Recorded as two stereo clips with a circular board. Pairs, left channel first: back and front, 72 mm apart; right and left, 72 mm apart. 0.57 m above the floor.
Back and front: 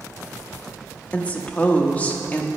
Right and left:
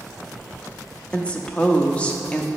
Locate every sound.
1.1 s a woman speaking: 145° right, 0.7 m